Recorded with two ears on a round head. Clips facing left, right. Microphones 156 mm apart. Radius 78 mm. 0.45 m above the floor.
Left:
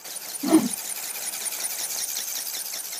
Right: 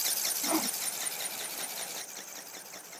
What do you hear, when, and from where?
0.4 s a whoosh: 60° left (ahead or behind)